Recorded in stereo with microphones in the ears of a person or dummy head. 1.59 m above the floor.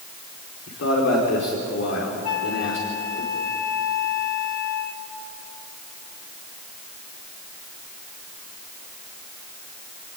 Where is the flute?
65° left (ahead or behind), 2 m.